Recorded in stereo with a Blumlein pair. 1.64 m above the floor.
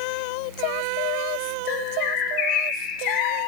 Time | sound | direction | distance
1.7 | a bird | 35° left | 1.4 m